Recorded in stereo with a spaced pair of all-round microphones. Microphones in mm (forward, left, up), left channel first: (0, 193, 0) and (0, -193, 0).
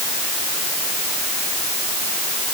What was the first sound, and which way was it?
Only background noise.